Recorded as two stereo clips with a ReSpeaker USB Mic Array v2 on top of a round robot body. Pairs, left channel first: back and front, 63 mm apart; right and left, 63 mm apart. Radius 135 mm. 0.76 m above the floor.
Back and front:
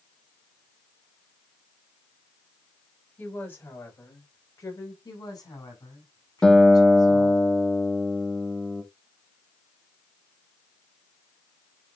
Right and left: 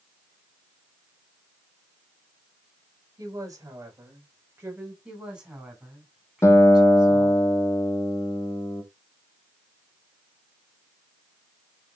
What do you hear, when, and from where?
3.2 s a woman speaking: 120° left, 5 m; by 5.0 s 150° left, 5 m
5.0 s a woman speaking: 165° left, 6.5 m
6.4 s a guitar: 105° right, 1.4 m